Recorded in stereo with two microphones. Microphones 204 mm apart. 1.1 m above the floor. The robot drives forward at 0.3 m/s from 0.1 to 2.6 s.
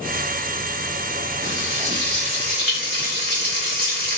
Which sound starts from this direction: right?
Frying, at 1.4 s.